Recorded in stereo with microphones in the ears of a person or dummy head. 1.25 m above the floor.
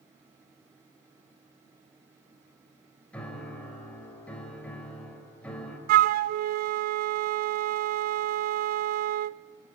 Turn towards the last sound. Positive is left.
turn(degrees=-55)  # may be behind; listen again after turning